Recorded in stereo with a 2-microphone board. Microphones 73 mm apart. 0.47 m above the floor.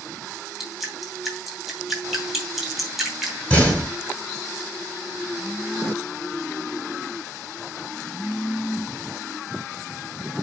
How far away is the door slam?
About 4.5 m.